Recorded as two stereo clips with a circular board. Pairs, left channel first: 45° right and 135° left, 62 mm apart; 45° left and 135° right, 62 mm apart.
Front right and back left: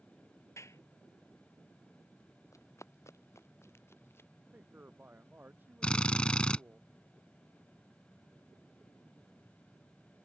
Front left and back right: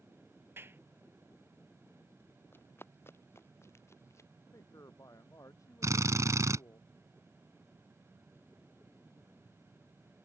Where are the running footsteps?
10° right; by 4.3 s 5° left.